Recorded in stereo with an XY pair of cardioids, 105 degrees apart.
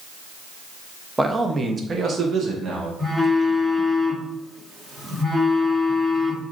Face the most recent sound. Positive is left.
turn(degrees=-15)